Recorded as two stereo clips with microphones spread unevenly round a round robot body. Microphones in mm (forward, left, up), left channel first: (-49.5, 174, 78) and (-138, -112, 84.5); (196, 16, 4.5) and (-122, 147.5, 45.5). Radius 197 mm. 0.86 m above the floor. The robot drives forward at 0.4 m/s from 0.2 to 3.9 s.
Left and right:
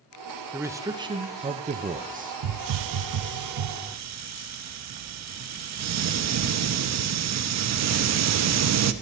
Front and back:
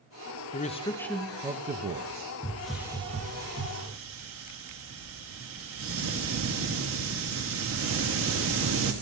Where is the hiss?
95° right, 0.5 m; by 8.9 s 145° right, 0.8 m.